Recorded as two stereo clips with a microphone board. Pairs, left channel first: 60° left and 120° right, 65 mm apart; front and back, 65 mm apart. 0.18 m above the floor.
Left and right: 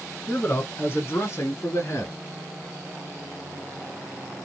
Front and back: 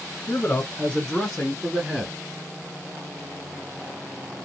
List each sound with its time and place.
0.3 s a man speaking: 15° left, 1.2 m; by 2.1 s 105° left, 1.9 m